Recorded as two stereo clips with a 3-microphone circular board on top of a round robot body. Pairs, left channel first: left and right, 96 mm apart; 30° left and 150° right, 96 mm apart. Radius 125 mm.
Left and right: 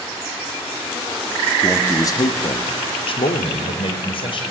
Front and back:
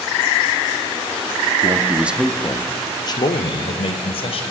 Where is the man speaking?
170° left, 1.4 m; by 4.4 s 55° left, 3.5 m.